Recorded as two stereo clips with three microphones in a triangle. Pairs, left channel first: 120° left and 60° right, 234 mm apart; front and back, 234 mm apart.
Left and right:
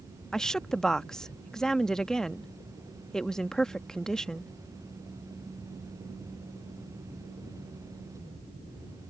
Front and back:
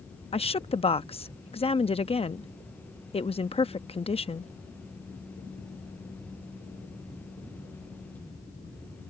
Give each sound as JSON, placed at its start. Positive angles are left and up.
{"t": 0.3, "sound": "a woman speaking", "azimuth_deg": 35}